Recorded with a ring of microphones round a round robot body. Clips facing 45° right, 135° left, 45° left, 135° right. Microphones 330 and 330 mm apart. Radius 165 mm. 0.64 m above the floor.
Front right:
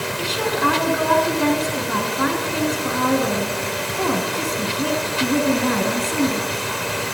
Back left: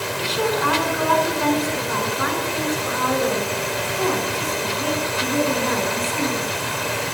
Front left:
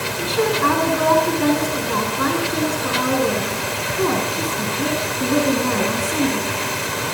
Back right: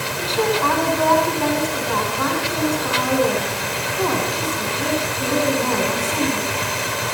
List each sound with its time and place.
0.2 s a woman speaking: 25° right, 6.5 m